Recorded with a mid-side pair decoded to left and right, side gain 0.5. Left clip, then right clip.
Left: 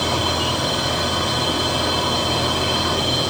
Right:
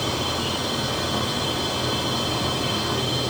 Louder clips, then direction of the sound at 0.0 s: Left 5 dB; 50° left.